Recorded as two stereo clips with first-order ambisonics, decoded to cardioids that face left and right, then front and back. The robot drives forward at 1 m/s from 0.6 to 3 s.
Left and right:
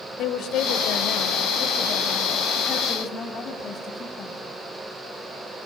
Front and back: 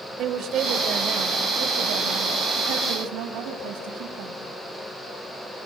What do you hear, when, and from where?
0.2 s a woman speaking: 130° left, 3 m; by 4.4 s 155° left, 4.5 m